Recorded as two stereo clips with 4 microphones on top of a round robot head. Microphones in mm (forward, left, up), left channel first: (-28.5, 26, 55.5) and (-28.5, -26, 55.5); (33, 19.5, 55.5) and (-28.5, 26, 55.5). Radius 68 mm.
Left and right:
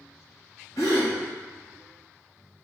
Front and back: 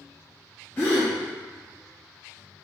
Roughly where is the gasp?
Ahead left.